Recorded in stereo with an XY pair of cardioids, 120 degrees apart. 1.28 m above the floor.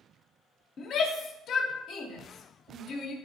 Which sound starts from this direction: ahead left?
A shout, at 0.8 s.